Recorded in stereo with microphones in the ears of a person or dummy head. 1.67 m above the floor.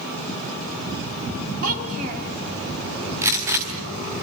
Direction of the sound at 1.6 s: 40° right (ahead or behind).